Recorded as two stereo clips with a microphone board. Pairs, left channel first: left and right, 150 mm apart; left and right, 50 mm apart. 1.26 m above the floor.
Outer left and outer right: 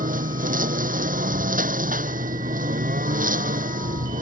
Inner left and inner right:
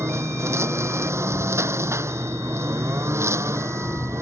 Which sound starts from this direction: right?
A lawn mower, at 0.0 s.